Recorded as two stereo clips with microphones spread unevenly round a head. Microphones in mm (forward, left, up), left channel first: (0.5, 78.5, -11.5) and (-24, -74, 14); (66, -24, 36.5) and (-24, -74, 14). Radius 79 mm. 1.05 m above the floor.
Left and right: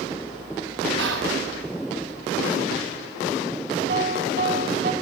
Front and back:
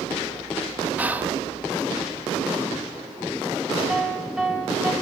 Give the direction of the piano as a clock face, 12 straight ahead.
2 o'clock.